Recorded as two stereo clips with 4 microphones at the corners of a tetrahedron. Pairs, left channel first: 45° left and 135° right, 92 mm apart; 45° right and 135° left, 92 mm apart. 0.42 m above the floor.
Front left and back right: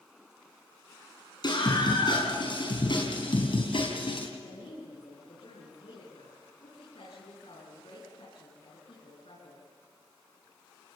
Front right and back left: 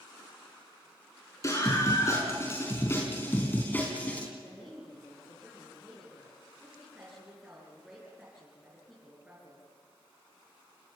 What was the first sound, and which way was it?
A scream, 10° left.